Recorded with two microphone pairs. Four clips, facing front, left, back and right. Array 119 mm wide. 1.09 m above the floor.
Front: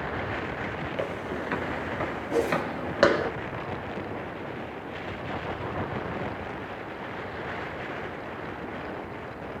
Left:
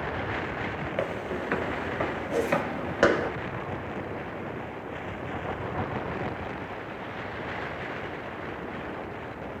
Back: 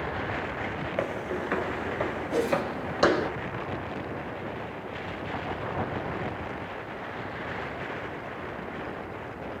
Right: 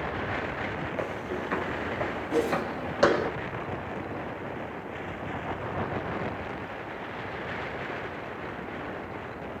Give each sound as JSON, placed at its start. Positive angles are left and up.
{"t": 1.0, "sound": "footsteps", "azimuth_deg": 145, "distance_m": 1.2}
{"t": 2.3, "sound": "a whoosh", "azimuth_deg": -25, "distance_m": 1.7}